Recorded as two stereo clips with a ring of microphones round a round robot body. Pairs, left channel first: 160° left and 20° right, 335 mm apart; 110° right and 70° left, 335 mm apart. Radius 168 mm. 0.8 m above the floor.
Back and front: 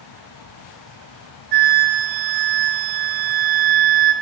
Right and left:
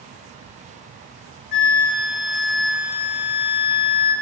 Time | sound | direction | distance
1.5 | a flute | 45° right | 3.5 m